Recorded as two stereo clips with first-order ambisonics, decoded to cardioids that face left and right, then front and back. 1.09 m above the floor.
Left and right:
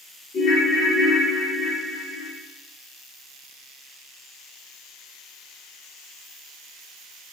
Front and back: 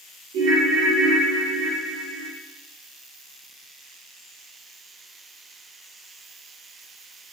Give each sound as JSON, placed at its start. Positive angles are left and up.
{"t": 0.3, "sound": "a ringtone", "azimuth_deg": 150, "distance_m": 0.7}